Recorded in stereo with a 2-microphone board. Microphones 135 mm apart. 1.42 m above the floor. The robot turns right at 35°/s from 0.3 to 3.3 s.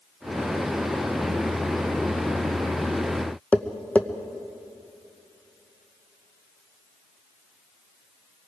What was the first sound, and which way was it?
Tapping, 10° left (ahead or behind).